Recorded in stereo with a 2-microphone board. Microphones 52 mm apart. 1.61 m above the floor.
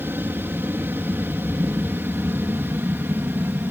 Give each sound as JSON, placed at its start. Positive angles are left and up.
{"t": 0.0, "sound": "an aircraft", "side_deg": -45}